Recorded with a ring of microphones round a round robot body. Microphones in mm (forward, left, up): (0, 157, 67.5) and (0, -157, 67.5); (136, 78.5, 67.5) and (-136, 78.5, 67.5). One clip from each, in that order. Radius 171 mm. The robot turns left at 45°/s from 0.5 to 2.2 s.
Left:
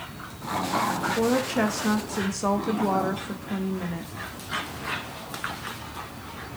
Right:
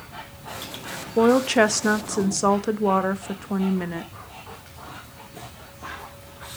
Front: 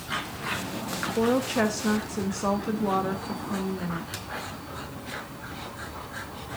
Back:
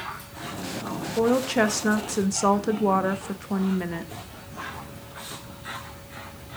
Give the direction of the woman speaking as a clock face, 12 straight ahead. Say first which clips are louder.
Right 10 dB, back 3 dB; 3 o'clock.